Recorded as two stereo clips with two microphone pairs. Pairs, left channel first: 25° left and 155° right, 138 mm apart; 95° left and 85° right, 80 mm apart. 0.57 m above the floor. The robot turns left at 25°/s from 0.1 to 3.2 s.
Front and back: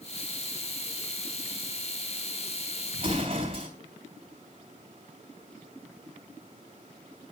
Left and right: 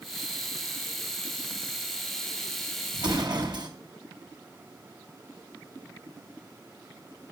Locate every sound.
3.0 s an explosion: 105° right, 3.5 m; by 3.7 s 110° right, 3.5 m